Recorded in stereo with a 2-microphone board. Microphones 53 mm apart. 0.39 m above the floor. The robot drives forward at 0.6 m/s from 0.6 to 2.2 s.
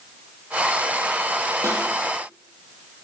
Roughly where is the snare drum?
Right.